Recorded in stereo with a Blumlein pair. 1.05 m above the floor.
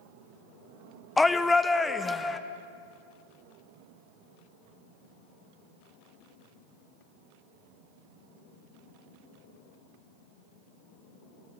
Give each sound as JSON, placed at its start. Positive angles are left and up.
{"t": 1.2, "sound": "a shout", "azimuth_deg": 10, "distance_m": 0.6}